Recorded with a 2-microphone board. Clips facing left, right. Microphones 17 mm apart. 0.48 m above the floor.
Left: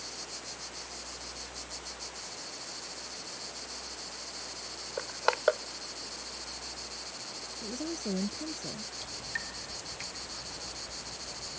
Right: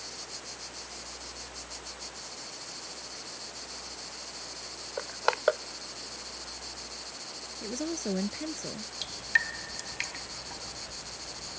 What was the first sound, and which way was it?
Crushing, centre (ahead or behind).